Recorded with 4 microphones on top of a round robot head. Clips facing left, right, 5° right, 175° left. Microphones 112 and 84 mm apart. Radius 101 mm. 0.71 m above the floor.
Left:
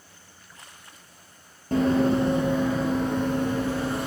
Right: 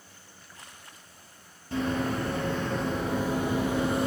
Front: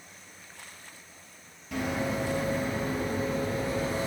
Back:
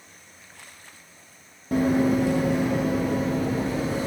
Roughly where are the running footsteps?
Behind left.